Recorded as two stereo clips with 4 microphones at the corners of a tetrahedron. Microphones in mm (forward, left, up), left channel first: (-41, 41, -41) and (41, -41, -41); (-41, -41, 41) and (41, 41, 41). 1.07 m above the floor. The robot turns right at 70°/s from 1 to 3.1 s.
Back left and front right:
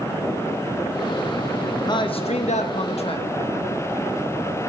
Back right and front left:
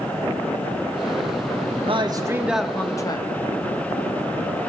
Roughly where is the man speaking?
Left.